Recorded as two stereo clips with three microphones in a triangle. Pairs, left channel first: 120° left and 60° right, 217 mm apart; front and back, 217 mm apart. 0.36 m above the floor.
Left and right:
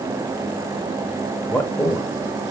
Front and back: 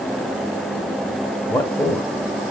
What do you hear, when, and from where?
1.5 s a man speaking: 55° left, 0.9 m